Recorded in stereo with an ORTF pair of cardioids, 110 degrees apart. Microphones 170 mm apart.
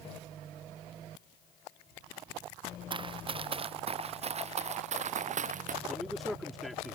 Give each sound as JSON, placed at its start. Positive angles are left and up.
{"t": 2.9, "sound": "running footsteps", "azimuth_deg": -30}
{"t": 5.9, "sound": "a man speaking", "azimuth_deg": 0}